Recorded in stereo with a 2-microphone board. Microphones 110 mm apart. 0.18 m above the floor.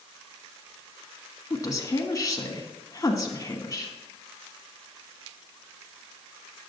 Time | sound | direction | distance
1.5 | a woman speaking | 30° left (ahead or behind) | 1.4 m